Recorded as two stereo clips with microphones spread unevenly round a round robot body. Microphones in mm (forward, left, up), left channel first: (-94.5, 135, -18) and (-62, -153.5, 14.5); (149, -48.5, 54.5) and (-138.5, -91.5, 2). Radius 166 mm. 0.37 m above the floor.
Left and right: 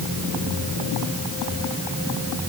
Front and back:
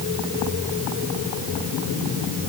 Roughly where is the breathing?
No breathing in this recording.